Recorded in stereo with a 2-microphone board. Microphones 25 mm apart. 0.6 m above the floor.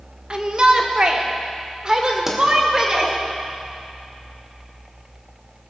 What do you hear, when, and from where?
0.3 s a shout: 40° right (ahead or behind), 1.3 m; by 3.1 s 35° right (ahead or behind), 2.5 m
2.3 s a pop: 15° right (ahead or behind), 2 m